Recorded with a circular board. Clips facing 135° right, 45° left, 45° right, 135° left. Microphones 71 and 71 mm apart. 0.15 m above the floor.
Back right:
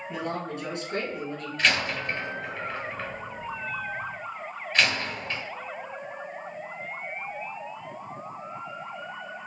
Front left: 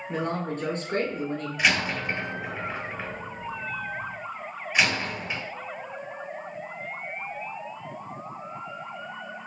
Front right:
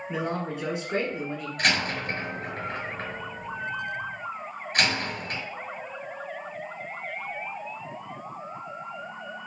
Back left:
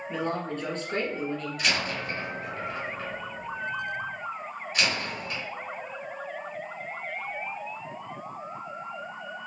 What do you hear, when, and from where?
0.1 s a man speaking: 30° left, 1.4 m
1.6 s a door slam: 30° right, 1.8 m